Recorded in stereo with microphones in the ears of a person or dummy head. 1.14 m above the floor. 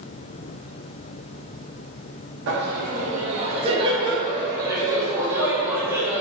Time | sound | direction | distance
2.5 | laughter | 60° right (ahead or behind) | 1.1 m